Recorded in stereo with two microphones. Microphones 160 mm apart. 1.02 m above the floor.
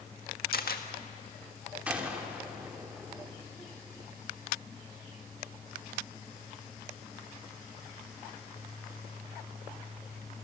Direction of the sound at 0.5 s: 70° left (ahead or behind).